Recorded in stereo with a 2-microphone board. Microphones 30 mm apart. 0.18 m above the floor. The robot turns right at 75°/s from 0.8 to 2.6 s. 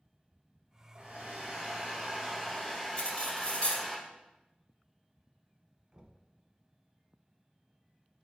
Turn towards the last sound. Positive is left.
turn(degrees=-25)  # may be behind; listen again after turning